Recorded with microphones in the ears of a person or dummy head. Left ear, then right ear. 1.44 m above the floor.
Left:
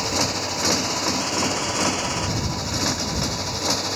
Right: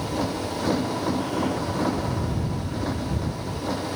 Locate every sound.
0.0 s a motorcycle: 70° left (ahead or behind); by 4.0 s 75° left (ahead or behind)